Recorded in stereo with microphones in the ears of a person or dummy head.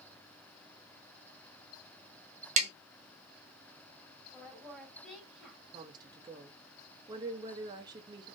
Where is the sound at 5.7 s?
25° right (ahead or behind), 0.7 m.